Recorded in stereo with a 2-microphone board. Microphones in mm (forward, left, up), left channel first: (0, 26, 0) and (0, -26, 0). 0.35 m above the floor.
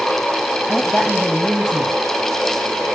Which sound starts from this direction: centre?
A woman speaking, at 0.7 s.